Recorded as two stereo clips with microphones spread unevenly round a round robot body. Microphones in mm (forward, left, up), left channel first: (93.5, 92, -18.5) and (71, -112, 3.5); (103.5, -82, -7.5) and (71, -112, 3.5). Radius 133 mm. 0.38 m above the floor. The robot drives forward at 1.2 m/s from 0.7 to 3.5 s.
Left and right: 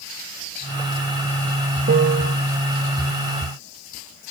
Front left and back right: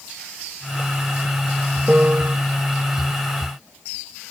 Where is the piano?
80° right; by 2.4 s 105° right.